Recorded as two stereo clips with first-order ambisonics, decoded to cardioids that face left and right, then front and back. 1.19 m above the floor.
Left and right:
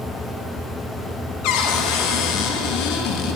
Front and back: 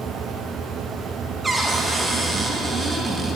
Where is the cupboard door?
100° left, 1.1 m.